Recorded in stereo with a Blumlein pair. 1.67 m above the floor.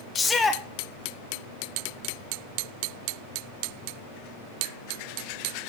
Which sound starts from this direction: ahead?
A shout, at 0.1 s.